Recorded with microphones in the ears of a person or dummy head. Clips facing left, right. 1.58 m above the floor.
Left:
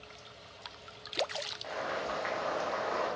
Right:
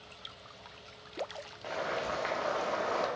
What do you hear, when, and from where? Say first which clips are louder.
1.6 s boiling: right 2 dB; 35° right (ahead or behind), 0.5 m